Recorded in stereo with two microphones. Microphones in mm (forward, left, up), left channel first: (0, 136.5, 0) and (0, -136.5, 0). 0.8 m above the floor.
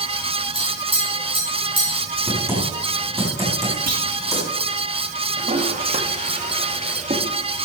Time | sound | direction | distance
0.6 | tapping | 85° right | 6 m
2.3 | typing on a keyboard | 10° right (ahead or behind) | 5 m
3.9 | a clunk | 70° right (ahead or behind) | 1.5 m
5.4 | a toilet flushing | 25° right (ahead or behind) | 1.4 m